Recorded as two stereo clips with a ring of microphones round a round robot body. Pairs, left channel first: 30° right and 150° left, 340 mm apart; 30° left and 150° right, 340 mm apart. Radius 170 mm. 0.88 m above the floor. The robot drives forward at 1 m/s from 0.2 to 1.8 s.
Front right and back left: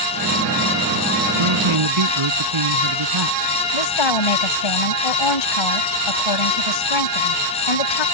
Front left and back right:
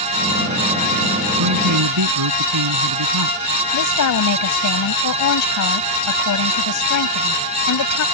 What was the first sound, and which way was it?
A man speaking, 170° left.